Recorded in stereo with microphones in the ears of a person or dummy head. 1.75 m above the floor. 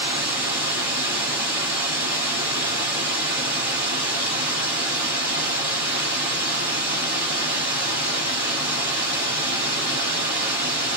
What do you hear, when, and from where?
0.0 s running water: 25° right (ahead or behind), 1.4 m